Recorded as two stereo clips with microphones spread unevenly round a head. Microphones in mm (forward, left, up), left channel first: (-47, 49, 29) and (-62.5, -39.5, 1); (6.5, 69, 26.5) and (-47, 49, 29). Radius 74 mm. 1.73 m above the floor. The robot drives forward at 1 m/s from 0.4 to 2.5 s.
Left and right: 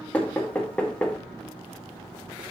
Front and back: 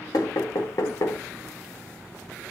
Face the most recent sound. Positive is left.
turn(degrees=155)